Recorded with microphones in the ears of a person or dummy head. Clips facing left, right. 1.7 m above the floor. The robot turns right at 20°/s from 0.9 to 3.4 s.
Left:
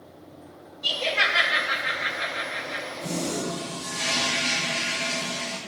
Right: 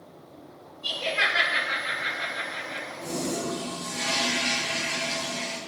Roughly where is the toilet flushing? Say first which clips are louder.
Left 1 dB; centre.